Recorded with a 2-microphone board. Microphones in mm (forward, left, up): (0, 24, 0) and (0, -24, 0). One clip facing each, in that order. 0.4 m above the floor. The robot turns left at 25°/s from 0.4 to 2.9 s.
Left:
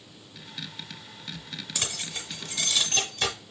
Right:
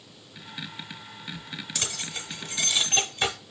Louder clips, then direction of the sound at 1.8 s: Left 1 dB; 10° left (ahead or behind).